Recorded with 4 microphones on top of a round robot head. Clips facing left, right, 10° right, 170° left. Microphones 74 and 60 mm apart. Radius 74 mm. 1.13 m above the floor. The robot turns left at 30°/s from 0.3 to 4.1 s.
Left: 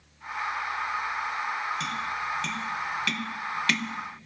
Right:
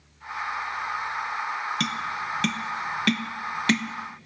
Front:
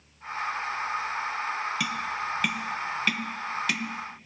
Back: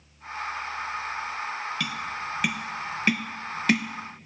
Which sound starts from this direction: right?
Tapping, at 1.8 s.